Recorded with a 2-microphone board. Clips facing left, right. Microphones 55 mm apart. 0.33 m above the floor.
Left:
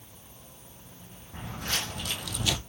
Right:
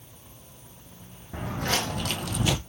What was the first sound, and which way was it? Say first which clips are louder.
Footsteps: right 6 dB; 65° right (ahead or behind).